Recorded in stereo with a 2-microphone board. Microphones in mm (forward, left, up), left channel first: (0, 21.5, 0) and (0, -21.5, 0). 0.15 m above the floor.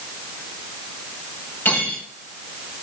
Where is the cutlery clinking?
55° left (ahead or behind), 6.5 m.